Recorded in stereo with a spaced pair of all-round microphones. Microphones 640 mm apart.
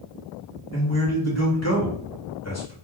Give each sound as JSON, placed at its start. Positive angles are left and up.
{"t": 0.7, "sound": "a man speaking", "side_deg": 25, "distance_m": 1.1}